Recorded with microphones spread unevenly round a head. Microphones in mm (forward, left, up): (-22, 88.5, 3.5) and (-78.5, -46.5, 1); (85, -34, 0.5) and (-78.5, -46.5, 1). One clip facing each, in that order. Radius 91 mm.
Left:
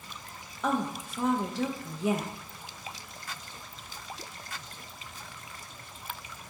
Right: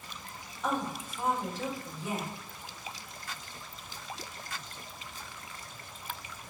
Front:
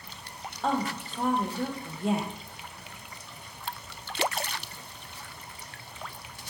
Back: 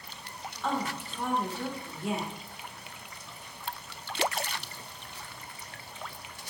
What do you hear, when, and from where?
0.6 s a woman speaking: 60° left, 0.5 m